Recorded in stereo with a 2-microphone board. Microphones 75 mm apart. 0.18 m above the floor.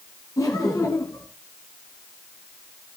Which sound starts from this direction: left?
Laughter, at 0.4 s.